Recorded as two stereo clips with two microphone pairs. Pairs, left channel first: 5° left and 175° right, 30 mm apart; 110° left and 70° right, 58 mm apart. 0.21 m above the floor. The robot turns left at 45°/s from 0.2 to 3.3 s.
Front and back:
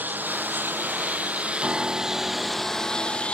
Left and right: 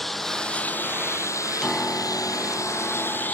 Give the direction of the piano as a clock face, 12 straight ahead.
6 o'clock.